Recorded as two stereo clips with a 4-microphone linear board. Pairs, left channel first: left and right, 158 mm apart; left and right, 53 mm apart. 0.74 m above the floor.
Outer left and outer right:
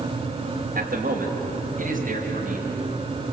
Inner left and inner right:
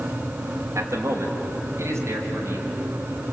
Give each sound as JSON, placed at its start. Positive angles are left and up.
{"t": 0.8, "sound": "a man speaking", "side_deg": -70, "distance_m": 3.5}